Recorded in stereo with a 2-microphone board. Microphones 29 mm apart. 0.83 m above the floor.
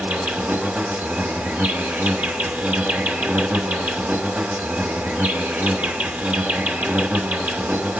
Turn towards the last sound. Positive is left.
turn(degrees=-70)  # may be behind; listen again after turning